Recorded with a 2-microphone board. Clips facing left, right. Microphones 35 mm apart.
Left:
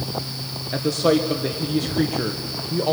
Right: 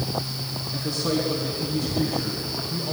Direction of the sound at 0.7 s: 70° left (ahead or behind).